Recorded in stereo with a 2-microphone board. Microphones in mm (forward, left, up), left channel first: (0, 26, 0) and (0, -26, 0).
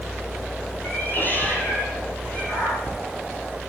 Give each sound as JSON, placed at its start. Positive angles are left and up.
{"t": 0.8, "sound": "a cat meowing", "side_deg": 40, "distance_m": 5.5}